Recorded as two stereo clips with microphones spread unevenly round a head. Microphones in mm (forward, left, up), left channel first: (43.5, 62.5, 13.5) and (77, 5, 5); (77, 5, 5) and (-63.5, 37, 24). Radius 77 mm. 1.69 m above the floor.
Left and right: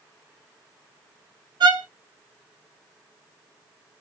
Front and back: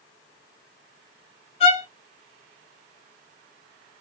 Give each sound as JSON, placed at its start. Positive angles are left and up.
{"t": 1.6, "sound": "a violin", "azimuth_deg": -70, "distance_m": 0.8}